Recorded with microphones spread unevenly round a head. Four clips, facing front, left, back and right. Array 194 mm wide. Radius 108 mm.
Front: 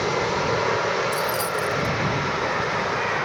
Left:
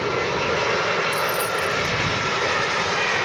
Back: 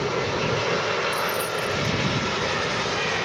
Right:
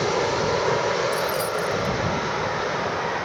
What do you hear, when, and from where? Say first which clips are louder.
1.1 s keys jangling: left 1 dB, front 2 dB; 60° left